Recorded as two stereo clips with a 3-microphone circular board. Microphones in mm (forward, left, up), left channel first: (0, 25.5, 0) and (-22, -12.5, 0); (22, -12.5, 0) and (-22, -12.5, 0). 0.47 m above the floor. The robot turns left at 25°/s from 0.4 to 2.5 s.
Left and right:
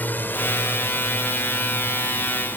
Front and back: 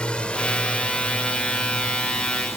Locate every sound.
0.0 s a drone: 55° left; by 2.6 s 15° left